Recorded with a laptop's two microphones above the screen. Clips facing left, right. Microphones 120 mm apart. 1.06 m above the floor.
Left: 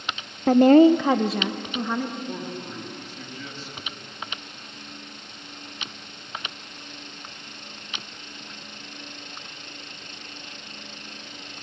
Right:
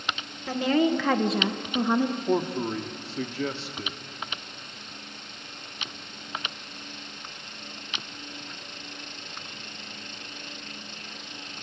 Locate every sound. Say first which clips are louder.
0.5 s a woman speaking: left 10 dB; 55° left (ahead or behind), 0.7 m; by 2.2 s 20° right (ahead or behind), 1.5 m
2.3 s a man speaking: right 8 dB; 80° right, 1.8 m